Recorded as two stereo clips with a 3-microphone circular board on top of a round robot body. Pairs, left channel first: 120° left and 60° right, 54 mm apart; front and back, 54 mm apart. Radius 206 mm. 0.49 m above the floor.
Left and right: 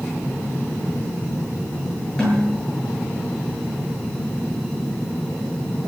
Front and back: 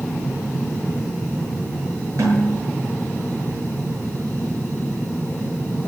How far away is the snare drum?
About 9 m.